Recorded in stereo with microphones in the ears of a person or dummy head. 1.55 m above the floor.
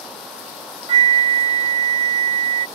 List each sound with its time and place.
0.9 s a flute: 35° right (ahead or behind)